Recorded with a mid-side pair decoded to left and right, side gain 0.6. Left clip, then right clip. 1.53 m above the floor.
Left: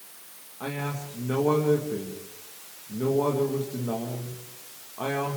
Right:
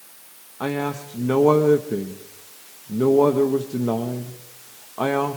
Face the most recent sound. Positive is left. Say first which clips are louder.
# right 7 dB
turn(degrees=-45)